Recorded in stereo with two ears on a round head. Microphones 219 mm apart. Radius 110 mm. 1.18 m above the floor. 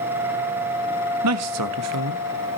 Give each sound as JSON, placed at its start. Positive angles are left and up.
{"t": 1.2, "sound": "a man speaking", "side_deg": -70, "distance_m": 1.1}